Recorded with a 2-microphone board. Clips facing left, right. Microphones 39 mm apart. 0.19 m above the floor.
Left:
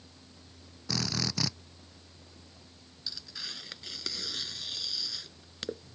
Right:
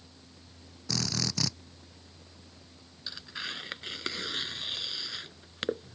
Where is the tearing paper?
35° right (ahead or behind).